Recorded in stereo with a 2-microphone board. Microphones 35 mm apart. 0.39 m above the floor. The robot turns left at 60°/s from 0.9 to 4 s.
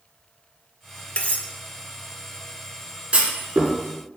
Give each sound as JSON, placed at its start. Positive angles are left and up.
{"t": 1.2, "sound": "cutlery clinking", "side_deg": 35, "distance_m": 0.7}
{"t": 3.1, "sound": "a clunk", "side_deg": -30, "distance_m": 2.0}